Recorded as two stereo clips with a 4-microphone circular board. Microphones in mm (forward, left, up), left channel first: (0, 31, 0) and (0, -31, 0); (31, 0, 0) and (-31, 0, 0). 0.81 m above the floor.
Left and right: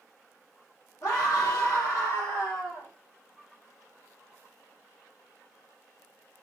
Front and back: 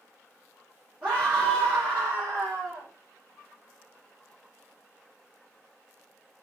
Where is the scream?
115° left, 2 m.